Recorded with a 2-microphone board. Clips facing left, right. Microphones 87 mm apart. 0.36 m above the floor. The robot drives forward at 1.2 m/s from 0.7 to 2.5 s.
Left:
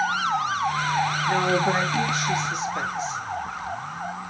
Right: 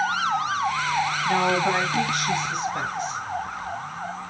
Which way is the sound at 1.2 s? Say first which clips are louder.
Right 1 dB; 70° right (ahead or behind).